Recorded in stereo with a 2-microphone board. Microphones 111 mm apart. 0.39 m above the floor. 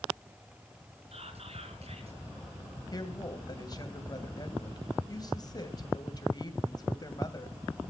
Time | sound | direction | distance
1.1 | whispering | 65° right (ahead or behind) | 4.5 m
2.9 | a woman speaking | 35° left (ahead or behind) | 2.5 m